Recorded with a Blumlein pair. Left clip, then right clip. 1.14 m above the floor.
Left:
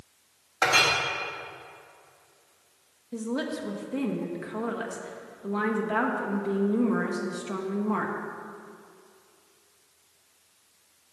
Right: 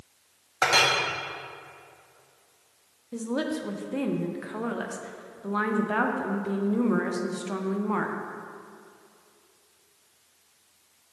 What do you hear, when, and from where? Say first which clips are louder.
0.6 s a clink: even; 10° right, 1.3 m
3.1 s a woman speaking: right 2 dB; 5° right, 0.7 m